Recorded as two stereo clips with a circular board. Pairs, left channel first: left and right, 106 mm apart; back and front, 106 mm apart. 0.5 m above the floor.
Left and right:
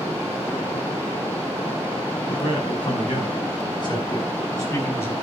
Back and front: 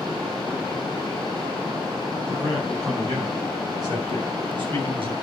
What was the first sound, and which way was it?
A man speaking, 60° left.